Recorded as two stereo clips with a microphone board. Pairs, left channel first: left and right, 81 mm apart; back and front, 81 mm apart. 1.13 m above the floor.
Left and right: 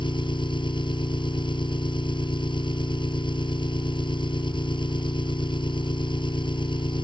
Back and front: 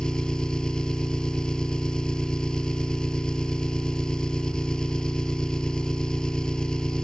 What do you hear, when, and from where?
0.0 s an engine running: 100° left